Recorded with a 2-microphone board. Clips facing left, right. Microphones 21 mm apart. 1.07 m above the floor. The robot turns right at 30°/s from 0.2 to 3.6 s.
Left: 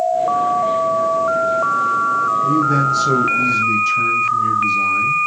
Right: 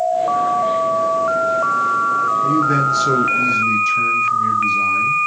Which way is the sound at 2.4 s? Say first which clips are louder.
Even; 40° right.